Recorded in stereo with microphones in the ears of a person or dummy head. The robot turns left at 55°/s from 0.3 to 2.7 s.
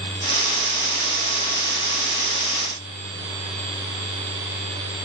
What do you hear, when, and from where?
Only background noise.